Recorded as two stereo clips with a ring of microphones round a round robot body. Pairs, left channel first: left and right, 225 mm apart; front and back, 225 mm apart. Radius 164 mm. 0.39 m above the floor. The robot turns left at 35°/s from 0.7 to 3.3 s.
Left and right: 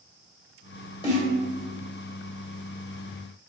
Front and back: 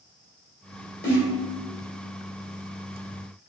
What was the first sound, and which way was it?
A snare drum, 30° left.